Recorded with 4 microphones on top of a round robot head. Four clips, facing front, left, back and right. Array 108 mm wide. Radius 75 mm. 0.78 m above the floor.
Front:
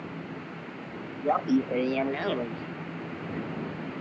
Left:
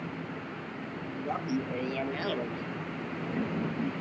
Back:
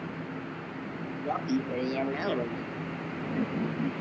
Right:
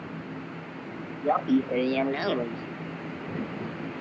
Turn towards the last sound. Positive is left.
turn(degrees=150)